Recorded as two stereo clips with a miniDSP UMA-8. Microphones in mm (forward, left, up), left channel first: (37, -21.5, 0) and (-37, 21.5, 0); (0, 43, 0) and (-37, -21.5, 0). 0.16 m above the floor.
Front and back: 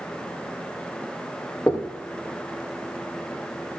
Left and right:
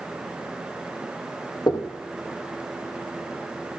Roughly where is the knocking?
Ahead left.